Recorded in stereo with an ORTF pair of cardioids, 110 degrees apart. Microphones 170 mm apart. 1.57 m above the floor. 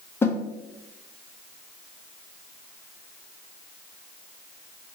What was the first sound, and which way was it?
A snare drum, 15° left.